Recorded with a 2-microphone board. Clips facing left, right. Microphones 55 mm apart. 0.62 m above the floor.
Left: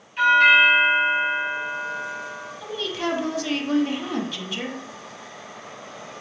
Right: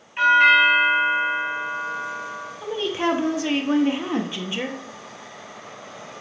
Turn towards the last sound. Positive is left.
turn(degrees=-25)  # may be behind; listen again after turning